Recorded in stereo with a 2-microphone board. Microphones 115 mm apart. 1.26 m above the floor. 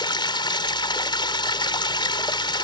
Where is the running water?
45° left (ahead or behind).